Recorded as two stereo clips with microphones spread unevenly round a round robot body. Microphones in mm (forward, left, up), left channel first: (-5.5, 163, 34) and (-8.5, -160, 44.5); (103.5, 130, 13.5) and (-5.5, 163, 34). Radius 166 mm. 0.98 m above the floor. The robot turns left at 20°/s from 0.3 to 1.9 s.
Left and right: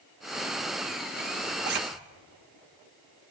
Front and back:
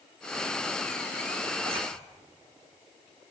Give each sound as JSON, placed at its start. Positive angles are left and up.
{"t": 1.6, "sound": "a zipper", "azimuth_deg": -145, "distance_m": 1.2}